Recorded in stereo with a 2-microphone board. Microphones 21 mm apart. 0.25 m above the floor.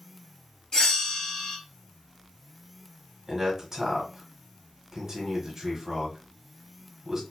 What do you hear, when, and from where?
0.7 s a bell: 40° left (ahead or behind), 1.1 m
3.3 s a man speaking: 20° right (ahead or behind), 1.2 m